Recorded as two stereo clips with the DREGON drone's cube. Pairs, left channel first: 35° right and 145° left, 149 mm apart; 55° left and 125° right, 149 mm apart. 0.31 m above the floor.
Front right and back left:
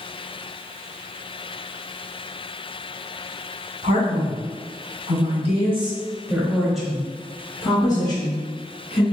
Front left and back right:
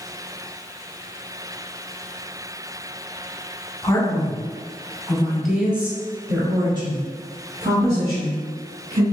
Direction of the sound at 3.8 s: 125° left.